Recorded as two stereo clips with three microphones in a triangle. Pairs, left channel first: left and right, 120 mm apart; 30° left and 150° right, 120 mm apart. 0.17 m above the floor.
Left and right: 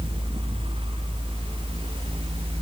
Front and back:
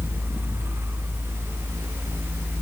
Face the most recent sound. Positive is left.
No sound to turn to.